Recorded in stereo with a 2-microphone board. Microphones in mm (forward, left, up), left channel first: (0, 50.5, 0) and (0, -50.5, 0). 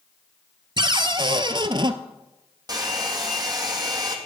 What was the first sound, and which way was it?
A cupboard door, 55° right (ahead or behind).